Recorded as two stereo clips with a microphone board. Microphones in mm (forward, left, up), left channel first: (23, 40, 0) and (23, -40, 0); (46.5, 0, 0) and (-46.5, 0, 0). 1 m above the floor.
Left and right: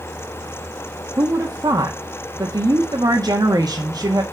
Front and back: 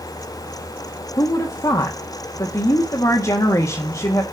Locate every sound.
1.2 s a woman speaking: 50° right, 1.3 m